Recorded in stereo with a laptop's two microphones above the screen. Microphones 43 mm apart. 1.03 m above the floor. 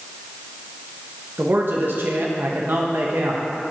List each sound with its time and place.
1.4 s a man speaking: 60° right (ahead or behind), 1.0 m